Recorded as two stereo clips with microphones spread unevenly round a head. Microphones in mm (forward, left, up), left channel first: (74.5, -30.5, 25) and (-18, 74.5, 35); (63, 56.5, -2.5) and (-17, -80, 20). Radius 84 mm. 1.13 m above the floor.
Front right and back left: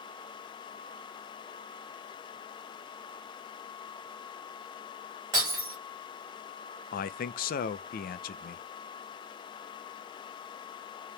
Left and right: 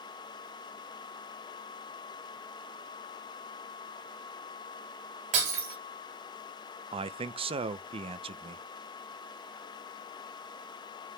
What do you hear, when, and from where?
5.3 s breaking glass: 160° right, 1.9 m
6.9 s a man speaking: 60° right, 0.5 m